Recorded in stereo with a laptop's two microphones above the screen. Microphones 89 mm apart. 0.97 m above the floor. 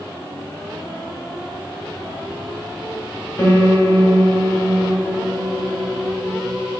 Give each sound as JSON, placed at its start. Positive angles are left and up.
{"t": 3.4, "sound": "a piano", "side_deg": 35, "distance_m": 1.1}